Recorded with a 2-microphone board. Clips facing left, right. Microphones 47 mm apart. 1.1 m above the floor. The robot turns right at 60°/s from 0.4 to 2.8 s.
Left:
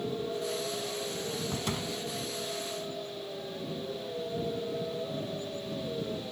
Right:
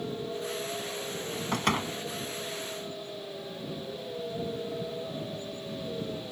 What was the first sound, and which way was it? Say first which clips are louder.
A door slam: right 5 dB; 65° right (ahead or behind).